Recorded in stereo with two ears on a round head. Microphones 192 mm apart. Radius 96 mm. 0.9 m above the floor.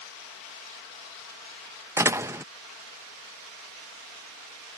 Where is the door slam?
10° right (ahead or behind).